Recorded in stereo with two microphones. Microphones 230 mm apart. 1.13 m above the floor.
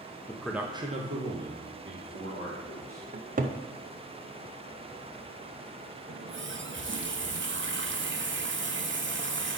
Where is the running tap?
55° right (ahead or behind), 0.6 m.